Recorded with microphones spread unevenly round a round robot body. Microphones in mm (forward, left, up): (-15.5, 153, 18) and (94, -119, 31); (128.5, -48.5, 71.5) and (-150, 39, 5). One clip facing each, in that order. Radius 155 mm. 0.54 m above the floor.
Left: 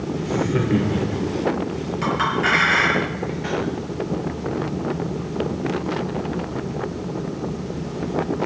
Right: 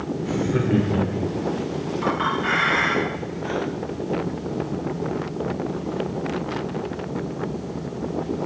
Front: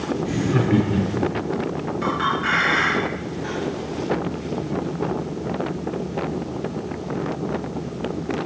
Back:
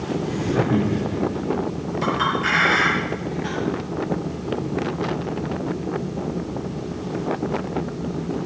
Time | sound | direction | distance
0.2 | laughter | 20° left | 2 m
2.0 | a clink | 85° left | 6.5 m